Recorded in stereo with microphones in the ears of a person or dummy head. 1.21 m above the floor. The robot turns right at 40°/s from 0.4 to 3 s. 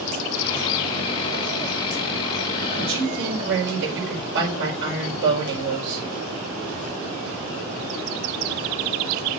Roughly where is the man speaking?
Right.